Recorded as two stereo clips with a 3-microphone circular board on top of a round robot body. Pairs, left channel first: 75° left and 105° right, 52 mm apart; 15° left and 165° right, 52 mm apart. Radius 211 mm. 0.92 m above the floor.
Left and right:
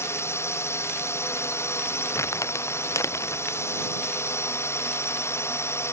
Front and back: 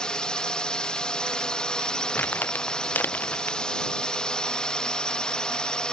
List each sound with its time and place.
0.0 s a drone: 85° left
2.1 s crumpling: 70° left